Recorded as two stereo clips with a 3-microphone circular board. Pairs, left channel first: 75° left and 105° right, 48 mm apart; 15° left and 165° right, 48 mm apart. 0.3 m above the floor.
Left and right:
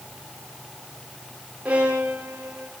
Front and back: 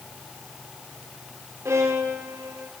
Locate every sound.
1.6 s a violin: 170° right, 4 m